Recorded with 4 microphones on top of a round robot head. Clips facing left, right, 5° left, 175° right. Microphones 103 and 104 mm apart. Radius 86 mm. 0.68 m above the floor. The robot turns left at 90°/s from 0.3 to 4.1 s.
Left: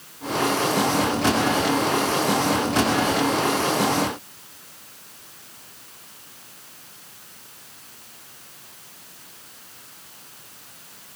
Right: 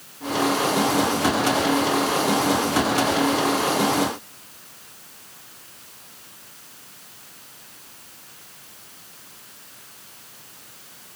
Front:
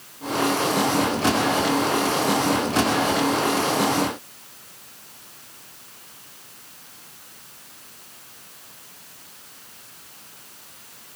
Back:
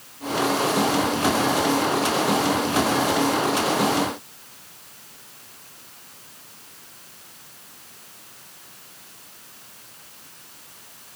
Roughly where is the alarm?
I don't hear an alarm.